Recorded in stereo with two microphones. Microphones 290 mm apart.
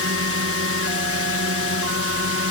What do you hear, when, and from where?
0.0 s a drone: 50° right (ahead or behind)